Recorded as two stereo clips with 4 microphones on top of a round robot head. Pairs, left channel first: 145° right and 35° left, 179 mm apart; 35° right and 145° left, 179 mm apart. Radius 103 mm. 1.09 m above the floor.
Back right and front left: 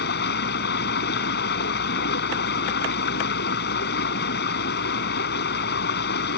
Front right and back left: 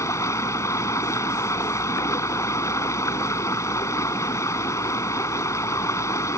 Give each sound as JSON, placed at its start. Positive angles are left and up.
{"t": 0.0, "sound": "running water", "azimuth_deg": -110}